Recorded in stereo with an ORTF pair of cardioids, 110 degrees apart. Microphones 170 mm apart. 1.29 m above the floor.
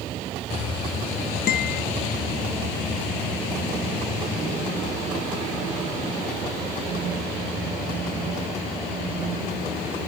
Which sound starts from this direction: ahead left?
A guitar, at 1.5 s.